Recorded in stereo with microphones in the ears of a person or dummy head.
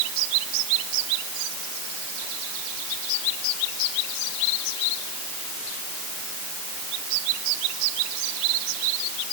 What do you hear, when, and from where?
Only background noise.